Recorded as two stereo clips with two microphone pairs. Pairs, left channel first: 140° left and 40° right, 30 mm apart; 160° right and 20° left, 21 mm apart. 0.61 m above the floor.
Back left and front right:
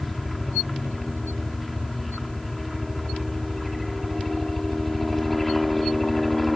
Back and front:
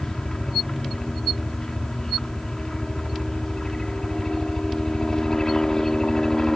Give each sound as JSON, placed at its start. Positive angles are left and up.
{"t": 0.0, "sound": "a helicopter", "azimuth_deg": -140}